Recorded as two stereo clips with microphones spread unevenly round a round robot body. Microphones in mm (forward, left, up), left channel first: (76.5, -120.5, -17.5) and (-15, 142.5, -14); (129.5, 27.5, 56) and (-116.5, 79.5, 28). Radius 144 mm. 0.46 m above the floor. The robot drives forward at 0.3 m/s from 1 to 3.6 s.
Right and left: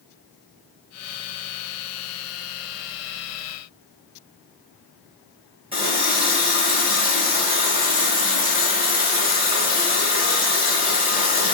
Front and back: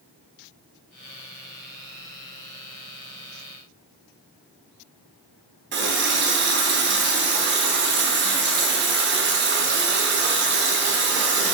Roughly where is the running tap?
Behind.